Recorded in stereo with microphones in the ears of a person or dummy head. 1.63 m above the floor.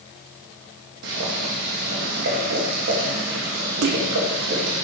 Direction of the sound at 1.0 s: 70° right (ahead or behind).